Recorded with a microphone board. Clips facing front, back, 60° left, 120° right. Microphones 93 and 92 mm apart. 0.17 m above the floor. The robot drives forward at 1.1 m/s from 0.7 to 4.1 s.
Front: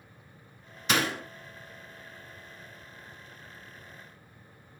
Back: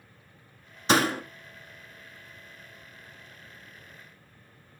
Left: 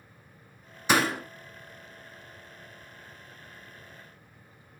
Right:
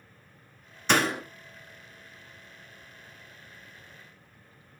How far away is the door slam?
About 1.2 m.